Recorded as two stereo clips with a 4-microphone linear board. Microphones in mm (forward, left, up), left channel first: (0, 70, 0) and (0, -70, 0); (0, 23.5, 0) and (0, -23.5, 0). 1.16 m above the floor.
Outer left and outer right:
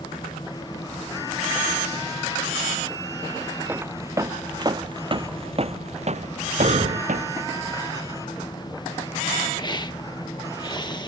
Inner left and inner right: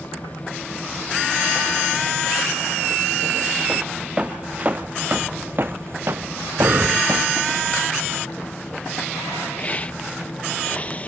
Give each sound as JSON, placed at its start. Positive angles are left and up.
{"t": 3.7, "sound": "footsteps", "side_deg": -15}
{"t": 6.6, "sound": "breathing", "side_deg": -55}
{"t": 9.6, "sound": "a hiss", "side_deg": 30}